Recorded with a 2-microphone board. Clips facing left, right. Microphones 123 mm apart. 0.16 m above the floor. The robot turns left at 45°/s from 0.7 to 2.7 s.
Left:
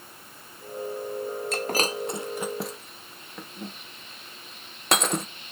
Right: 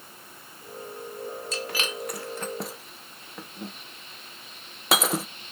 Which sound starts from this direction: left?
Breaking glass, at 1.5 s.